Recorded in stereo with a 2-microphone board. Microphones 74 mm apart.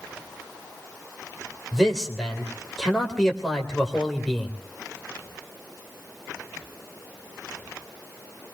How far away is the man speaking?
About 3.5 m.